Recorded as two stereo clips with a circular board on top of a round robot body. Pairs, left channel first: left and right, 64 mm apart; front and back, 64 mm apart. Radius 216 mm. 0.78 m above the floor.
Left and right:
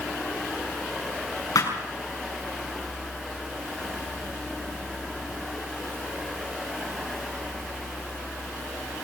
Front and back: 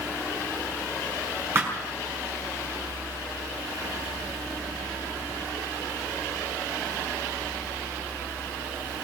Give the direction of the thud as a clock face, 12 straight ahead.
8 o'clock.